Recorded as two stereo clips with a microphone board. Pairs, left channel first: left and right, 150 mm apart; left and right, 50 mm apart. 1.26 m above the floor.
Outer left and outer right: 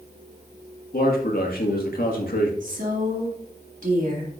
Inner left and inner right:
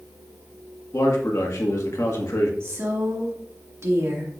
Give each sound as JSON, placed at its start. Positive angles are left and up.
{"t": 0.9, "sound": "a man speaking", "side_deg": 90, "distance_m": 1.8}
{"t": 2.6, "sound": "a woman speaking", "side_deg": -65, "distance_m": 2.0}